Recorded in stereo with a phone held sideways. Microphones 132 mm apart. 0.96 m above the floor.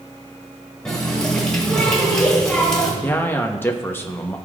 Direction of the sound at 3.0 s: 15° left (ahead or behind).